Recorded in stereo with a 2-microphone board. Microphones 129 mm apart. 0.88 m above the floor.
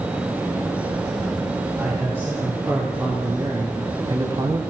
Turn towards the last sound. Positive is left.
turn(degrees=-35)  # may be behind; listen again after turning